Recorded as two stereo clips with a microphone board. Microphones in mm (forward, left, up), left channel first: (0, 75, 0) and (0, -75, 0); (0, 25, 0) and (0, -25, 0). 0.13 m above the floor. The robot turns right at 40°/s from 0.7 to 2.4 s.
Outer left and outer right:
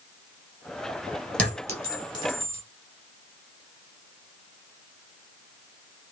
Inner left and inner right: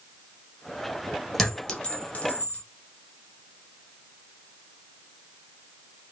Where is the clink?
5° left (ahead or behind), 1.7 m; by 2.6 s 40° left (ahead or behind), 1.7 m.